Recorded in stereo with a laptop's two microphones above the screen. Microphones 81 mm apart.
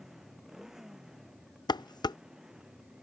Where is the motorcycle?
5° right (ahead or behind); by 3.0 s 10° right (ahead or behind).